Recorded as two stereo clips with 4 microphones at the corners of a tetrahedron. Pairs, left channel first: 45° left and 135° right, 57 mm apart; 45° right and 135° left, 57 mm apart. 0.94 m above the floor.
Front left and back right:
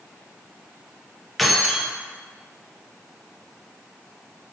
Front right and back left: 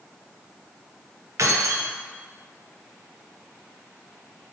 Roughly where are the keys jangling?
Behind left.